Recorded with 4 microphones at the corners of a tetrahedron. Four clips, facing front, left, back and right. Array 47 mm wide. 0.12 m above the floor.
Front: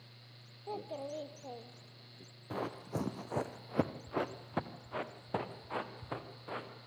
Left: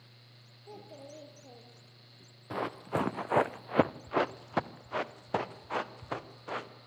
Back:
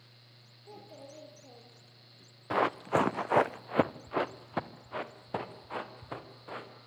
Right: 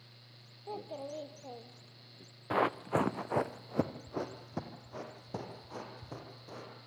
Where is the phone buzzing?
I don't hear a phone buzzing.